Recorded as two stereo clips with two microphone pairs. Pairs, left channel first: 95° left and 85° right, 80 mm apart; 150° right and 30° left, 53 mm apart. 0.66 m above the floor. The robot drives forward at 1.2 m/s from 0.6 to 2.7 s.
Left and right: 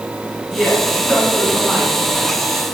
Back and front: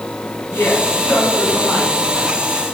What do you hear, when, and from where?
0.5 s a woman speaking: 175° left, 5.5 m; by 2.8 s straight behind, 8 m